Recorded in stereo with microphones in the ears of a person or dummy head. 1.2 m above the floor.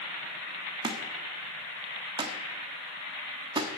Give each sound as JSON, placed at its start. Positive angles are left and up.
{"t": 0.8, "sound": "a thud", "side_deg": -20, "distance_m": 1.2}